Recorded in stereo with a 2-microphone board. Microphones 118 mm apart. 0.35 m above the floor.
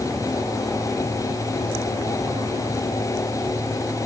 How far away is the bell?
No bell in this recording.